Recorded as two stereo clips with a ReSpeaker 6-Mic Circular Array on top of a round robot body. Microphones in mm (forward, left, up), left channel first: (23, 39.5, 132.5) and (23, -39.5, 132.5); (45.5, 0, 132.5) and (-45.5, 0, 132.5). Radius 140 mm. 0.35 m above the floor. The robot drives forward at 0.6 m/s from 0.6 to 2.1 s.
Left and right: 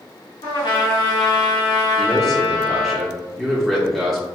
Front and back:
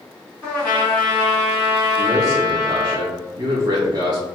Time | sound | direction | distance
0.4 | a trumpet | 65° left | 1.8 m
2.0 | a man speaking | 175° left | 1.0 m